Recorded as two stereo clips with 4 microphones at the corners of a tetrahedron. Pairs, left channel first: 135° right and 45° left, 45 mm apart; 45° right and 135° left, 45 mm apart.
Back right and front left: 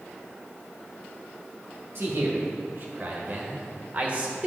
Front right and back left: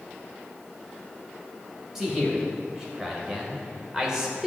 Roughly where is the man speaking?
Ahead left.